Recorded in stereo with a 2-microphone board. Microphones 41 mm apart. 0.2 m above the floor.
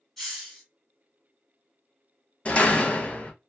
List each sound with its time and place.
0.2 s a hiss: 5° left (ahead or behind), 1.6 m
2.5 s a door slam: 30° left (ahead or behind), 0.8 m